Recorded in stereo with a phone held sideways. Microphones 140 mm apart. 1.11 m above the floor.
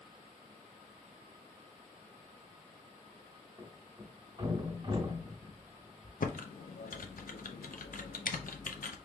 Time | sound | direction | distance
3.6 | a thud | 30° right (ahead or behind) | 2 m
6.2 | typing on a keyboard | 80° left | 0.5 m